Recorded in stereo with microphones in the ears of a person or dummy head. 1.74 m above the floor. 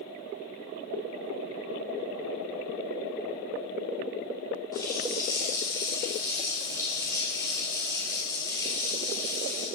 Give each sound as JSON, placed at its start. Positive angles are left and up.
{"t": 4.7, "sound": "a running tap", "side_deg": 20, "distance_m": 4.0}